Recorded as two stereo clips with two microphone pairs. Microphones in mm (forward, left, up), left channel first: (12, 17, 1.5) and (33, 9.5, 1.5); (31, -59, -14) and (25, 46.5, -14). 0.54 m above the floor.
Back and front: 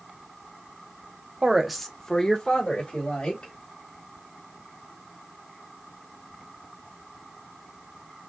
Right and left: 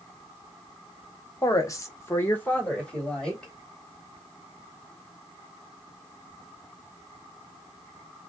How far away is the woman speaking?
About 0.9 m.